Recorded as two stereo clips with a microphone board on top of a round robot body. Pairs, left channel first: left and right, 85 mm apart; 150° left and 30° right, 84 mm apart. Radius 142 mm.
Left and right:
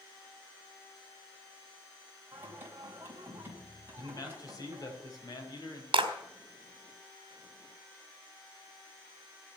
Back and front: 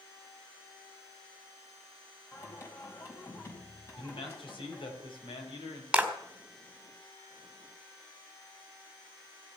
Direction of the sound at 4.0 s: 135° left.